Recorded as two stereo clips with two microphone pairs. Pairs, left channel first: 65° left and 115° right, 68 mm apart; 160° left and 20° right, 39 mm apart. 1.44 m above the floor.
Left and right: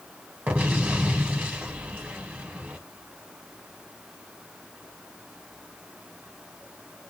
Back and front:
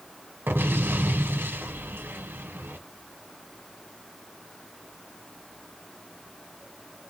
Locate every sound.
0.5 s an explosion: 50° right, 1.2 m